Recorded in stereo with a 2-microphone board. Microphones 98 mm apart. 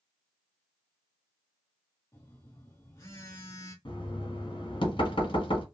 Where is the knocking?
60° left (ahead or behind), 1.0 m.